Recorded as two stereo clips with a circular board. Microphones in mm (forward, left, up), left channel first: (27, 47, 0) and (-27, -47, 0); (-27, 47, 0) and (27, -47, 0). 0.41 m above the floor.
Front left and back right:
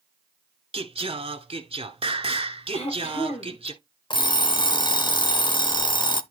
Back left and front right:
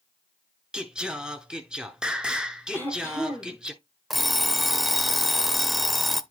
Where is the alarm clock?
30° left, 0.6 m.